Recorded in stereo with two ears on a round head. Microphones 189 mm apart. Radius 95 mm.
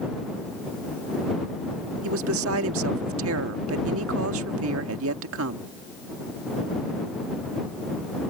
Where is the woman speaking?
70° right (ahead or behind).